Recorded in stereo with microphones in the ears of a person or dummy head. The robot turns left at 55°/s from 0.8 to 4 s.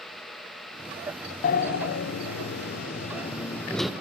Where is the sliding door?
135° left, 0.5 m; by 3.9 s straight ahead, 0.5 m.